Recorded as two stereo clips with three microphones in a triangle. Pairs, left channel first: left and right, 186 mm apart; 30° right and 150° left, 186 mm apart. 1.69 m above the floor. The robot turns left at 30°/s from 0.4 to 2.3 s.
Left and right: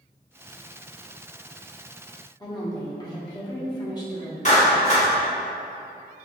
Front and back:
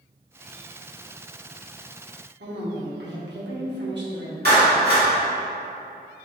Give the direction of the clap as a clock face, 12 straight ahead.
8 o'clock.